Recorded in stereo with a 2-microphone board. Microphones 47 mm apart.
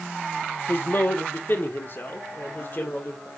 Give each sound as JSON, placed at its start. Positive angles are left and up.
{"t": 0.7, "sound": "a man speaking", "side_deg": 50, "distance_m": 1.1}